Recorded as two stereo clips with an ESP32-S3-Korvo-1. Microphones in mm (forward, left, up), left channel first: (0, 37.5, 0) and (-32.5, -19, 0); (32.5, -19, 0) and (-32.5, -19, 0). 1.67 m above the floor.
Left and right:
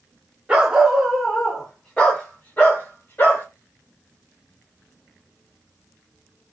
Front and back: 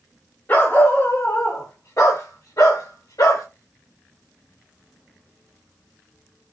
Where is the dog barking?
50° right, 1.7 m; by 3.5 s 5° left, 3 m.